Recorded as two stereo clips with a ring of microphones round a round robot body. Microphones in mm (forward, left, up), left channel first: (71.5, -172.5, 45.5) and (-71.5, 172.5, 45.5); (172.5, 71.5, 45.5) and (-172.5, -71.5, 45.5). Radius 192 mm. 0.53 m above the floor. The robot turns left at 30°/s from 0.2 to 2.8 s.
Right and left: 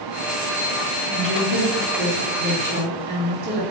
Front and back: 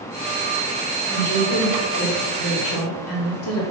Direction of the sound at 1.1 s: 110° left.